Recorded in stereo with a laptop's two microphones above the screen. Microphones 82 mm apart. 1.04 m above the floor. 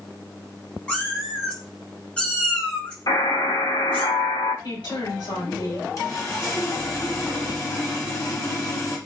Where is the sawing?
40° left (ahead or behind), 1.1 m.